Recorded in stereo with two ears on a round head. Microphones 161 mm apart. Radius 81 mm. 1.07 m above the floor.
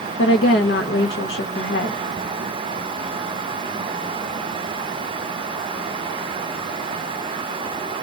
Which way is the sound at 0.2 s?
65° left (ahead or behind).